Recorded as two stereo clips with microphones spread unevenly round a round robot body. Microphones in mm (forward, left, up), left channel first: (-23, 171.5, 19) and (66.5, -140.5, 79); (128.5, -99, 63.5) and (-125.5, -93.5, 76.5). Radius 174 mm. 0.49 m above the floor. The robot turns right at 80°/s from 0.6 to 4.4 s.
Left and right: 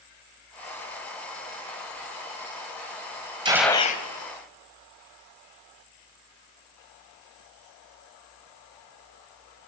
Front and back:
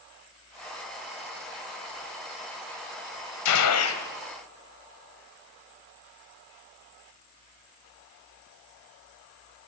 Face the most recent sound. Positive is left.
turn(degrees=80)